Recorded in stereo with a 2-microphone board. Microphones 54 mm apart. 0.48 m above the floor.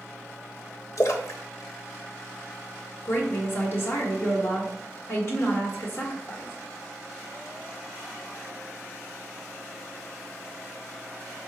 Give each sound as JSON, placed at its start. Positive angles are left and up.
{"t": 1.0, "sound": "a splash", "side_deg": 60, "distance_m": 0.5}
{"t": 3.0, "sound": "a woman speaking", "side_deg": 45, "distance_m": 1.5}